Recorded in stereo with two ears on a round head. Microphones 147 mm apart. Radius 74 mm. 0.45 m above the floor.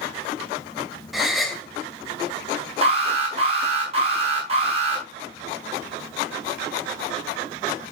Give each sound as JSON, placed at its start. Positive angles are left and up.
{"t": 1.1, "sound": "a gasp", "side_deg": 0, "distance_m": 2.0}
{"t": 2.8, "sound": "an alarm", "side_deg": -40, "distance_m": 6.0}